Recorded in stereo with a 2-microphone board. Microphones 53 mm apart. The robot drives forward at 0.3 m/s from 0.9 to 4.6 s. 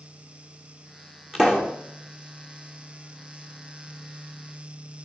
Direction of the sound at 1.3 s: 10° right (ahead or behind).